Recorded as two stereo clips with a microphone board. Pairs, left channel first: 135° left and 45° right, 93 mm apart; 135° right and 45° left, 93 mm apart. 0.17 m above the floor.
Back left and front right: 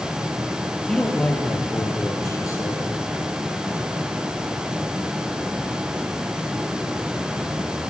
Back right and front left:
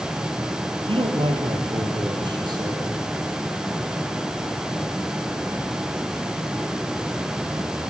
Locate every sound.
0.9 s a man speaking: 50° left, 3 m; by 2.9 s 85° left, 4.5 m